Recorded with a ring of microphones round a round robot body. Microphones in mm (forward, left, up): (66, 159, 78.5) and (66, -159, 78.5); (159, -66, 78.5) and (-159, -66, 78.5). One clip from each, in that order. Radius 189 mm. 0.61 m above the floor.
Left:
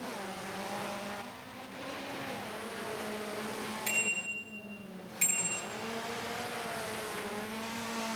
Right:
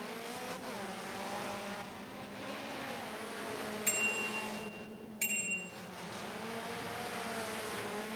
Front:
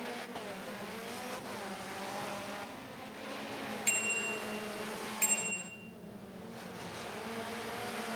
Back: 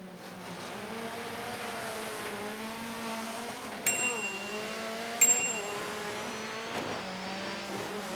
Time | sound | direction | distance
3.9 | a bicycle bell | 165° left | 6.5 m